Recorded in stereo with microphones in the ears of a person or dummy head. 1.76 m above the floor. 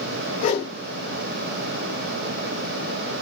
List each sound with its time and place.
0.4 s a whoosh: 45° left (ahead or behind), 2.5 m